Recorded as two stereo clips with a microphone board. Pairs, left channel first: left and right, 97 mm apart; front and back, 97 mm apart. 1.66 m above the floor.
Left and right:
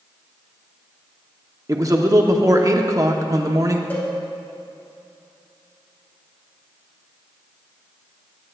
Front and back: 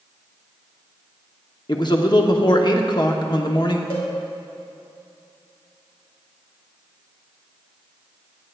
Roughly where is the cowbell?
Ahead.